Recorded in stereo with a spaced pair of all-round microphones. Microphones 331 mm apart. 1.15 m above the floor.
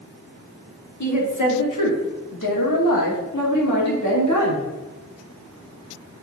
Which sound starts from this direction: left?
A woman speaking, at 1.0 s.